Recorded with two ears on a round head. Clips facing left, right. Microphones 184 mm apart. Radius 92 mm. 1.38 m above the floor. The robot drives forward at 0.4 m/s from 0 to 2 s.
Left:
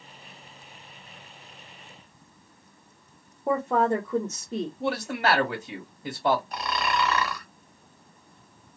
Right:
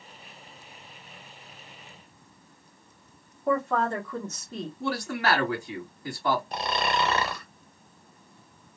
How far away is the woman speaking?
About 1.0 m.